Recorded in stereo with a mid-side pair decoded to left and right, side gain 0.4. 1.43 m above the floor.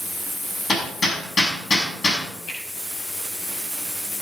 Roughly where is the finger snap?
Left.